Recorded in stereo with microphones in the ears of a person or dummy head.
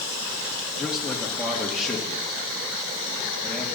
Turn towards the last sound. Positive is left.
turn(degrees=0)  # may be behind; listen again after turning